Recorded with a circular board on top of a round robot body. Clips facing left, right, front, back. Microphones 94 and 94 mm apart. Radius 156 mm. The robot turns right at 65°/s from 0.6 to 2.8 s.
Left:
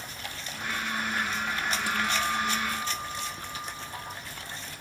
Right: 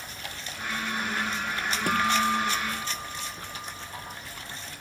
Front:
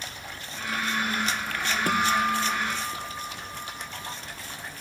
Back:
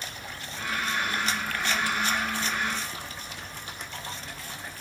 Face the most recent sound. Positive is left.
turn(degrees=10)